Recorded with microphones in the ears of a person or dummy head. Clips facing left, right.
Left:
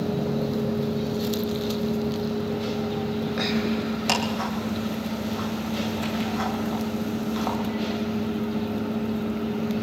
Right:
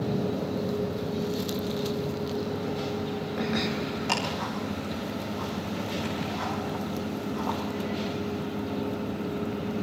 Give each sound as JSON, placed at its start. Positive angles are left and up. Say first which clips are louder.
{"t": 4.1, "sound": "ticking", "louder": "left 5 dB", "side_deg": 80, "distance_m": 9.5}